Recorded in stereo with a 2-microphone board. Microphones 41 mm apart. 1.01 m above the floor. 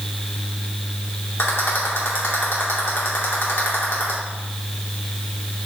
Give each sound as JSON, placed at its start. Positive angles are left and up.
{"t": 1.4, "sound": "a rattle", "side_deg": 75, "distance_m": 2.5}